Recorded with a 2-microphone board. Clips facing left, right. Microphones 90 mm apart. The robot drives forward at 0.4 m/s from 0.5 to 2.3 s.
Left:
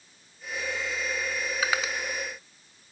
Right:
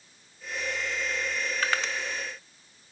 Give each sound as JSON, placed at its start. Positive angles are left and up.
{"t": 1.6, "sound": "crushing", "side_deg": 10, "distance_m": 1.1}